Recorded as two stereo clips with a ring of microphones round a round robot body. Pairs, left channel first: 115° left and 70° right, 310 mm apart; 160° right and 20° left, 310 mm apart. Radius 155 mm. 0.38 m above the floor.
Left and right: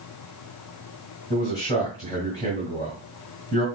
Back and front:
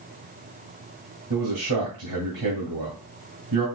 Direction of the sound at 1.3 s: 35° left.